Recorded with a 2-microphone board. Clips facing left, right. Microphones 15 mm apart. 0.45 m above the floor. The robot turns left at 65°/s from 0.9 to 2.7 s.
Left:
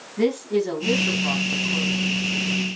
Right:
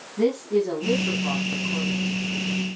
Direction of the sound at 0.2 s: 45° left.